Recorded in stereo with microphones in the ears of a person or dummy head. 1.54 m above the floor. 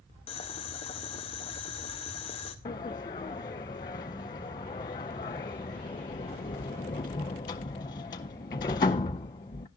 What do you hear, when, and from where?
0.3 s boiling: 25° left (ahead or behind), 1.1 m
2.6 s a sliding door: 20° left (ahead or behind), 0.6 m